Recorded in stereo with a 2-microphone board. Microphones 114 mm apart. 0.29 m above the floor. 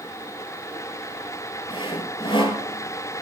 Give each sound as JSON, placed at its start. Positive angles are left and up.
{"t": 1.7, "sound": "sawing", "side_deg": 50, "distance_m": 1.0}